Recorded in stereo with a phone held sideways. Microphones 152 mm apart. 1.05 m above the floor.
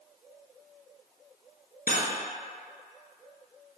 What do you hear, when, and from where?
1.9 s cutlery clinking: 65° left (ahead or behind), 0.6 m